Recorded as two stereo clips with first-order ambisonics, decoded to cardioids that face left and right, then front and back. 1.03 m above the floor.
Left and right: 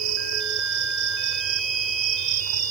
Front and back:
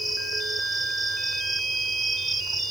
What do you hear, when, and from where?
0.0 s an insect: 100° right